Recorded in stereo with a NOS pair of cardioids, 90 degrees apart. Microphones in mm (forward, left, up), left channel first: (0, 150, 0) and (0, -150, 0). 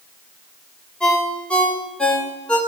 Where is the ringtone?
5° left, 3 m.